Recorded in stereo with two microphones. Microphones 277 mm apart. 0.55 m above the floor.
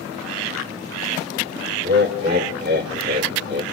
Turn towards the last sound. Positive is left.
turn(degrees=-40)  # may be behind; listen again after turning